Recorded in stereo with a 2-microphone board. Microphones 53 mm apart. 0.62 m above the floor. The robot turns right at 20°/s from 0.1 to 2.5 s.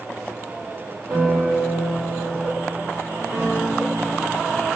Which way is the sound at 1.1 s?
60° right (ahead or behind).